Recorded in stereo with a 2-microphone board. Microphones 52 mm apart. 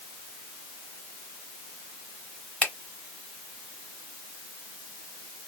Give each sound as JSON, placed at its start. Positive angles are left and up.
{"t": 2.6, "sound": "a finger snap", "side_deg": 20, "distance_m": 1.0}